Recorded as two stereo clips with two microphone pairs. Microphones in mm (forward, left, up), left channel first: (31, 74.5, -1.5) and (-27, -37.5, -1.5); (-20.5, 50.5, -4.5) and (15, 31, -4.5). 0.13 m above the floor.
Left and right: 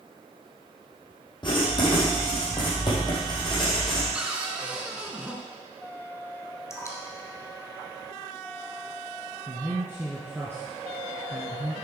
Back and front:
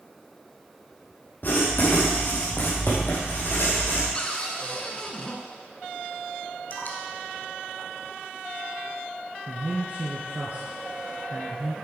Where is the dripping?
125° left, 1.5 m.